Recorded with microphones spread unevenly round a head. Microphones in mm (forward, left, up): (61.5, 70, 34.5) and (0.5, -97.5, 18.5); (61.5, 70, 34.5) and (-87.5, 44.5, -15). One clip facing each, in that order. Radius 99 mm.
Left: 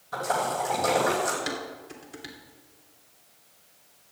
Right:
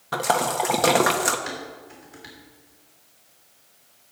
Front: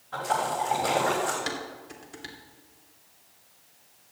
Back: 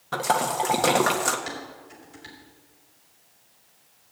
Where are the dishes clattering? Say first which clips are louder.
Left 1 dB, front 1 dB; 20° left, 3 m.